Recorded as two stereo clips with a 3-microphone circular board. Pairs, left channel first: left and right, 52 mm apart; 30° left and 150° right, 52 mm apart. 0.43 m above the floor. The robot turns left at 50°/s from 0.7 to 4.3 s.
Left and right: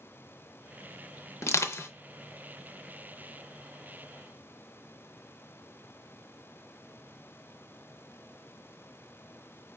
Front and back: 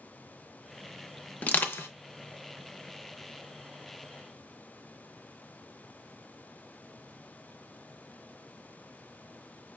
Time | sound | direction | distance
1.4 | crushing | 85° left | 0.6 m